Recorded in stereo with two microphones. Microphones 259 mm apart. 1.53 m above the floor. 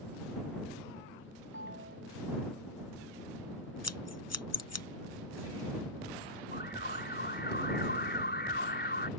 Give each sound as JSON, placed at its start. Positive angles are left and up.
{"t": 1.5, "sound": "a ringtone", "side_deg": -50}
{"t": 3.8, "sound": "scissors", "side_deg": 70}
{"t": 6.5, "sound": "an alarm", "side_deg": 40}